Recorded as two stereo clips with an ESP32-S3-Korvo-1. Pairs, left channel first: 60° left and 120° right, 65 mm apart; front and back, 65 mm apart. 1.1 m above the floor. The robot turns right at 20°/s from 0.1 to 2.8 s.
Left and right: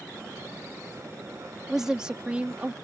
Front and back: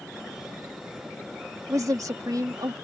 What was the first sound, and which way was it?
A woman speaking, 155° left.